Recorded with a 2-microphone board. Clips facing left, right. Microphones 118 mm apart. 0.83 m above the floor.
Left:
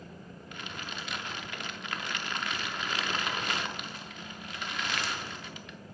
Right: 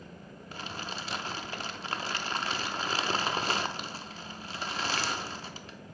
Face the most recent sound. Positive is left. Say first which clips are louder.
# right 3 dB
turn(degrees=-35)  # may be behind; listen again after turning